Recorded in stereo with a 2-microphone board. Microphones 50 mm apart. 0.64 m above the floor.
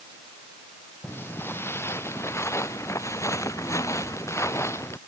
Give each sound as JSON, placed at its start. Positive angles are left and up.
{"t": 1.0, "sound": "footsteps", "side_deg": 50}